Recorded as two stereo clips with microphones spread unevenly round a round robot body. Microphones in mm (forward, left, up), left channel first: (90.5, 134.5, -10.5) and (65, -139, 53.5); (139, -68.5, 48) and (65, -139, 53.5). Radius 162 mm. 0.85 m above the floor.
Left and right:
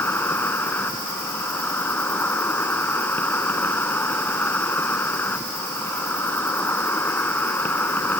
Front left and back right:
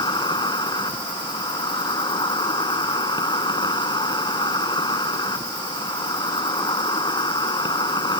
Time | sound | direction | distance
0.0 | an insect | straight ahead | ?